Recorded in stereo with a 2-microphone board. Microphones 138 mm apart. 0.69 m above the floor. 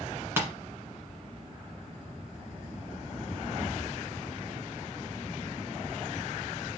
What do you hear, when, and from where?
0.4 s tapping: 15° right (ahead or behind), 1.4 m